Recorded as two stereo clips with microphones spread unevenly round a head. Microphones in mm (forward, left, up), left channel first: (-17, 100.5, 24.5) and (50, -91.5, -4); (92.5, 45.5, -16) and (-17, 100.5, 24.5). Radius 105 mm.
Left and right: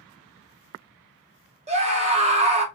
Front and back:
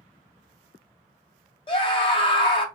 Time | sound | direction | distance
1.7 | a scream | 25° right | 1.0 m